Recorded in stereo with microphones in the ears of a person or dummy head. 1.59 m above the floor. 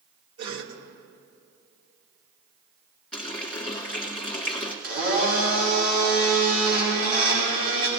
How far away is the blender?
About 5 m.